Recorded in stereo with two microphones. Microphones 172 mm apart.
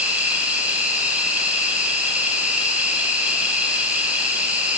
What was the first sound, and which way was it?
An insect, 10° right (ahead or behind).